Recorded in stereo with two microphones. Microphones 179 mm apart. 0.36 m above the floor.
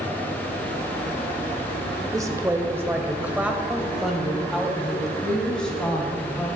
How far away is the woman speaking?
About 1.2 m.